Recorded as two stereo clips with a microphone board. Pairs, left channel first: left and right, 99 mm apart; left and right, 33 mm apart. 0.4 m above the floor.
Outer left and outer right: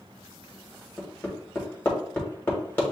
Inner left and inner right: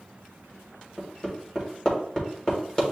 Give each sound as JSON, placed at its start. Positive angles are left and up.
{"t": 1.0, "sound": "hammering", "side_deg": 20, "distance_m": 1.6}